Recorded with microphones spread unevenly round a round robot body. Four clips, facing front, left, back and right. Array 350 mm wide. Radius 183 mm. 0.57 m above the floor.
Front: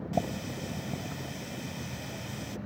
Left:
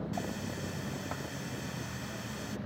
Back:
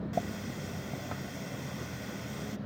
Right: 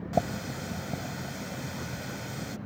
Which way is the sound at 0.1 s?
50° right.